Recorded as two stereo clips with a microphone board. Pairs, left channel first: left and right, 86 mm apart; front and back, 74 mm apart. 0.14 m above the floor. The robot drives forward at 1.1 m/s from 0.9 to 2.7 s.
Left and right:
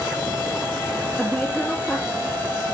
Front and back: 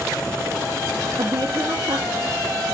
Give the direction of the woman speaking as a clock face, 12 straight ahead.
6 o'clock.